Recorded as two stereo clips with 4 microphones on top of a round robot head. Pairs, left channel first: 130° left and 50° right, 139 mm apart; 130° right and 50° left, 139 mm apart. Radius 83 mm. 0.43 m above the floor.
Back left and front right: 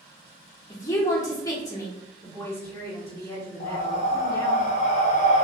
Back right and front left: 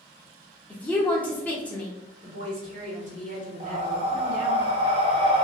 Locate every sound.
0.7 s a woman speaking: 165° left, 0.9 m
2.2 s a woman speaking: 65° left, 1.7 m
3.6 s breathing: 95° left, 0.9 m